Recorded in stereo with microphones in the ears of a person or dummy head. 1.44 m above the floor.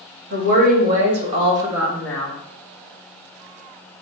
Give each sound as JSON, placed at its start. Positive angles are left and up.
{"t": 0.3, "sound": "a woman speaking", "side_deg": -45, "distance_m": 1.4}